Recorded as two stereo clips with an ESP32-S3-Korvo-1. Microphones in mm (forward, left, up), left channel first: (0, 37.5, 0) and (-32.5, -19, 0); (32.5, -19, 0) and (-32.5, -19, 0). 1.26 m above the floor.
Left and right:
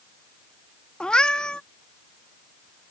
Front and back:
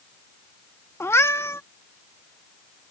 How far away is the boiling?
No boiling in this recording.